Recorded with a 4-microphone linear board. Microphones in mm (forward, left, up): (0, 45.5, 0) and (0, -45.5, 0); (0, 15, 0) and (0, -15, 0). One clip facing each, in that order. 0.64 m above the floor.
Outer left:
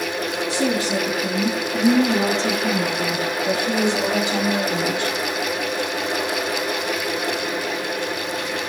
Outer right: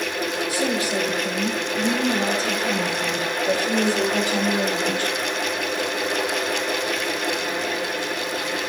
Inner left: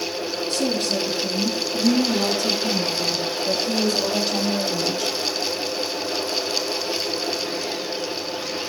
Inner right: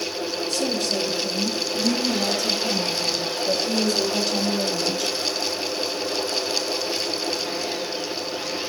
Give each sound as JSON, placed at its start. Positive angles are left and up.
{"t": 0.5, "sound": "a woman speaking", "side_deg": 30, "distance_m": 6.5}